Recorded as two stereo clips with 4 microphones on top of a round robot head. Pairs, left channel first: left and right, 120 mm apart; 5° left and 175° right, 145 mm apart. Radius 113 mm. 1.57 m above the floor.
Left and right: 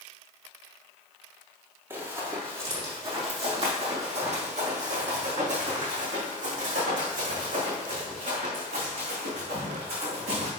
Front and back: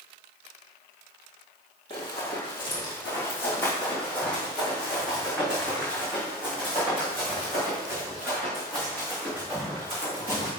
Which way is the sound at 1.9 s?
40° right.